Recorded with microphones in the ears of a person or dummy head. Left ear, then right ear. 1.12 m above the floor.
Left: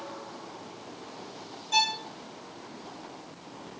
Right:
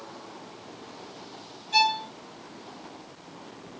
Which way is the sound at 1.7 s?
55° left (ahead or behind).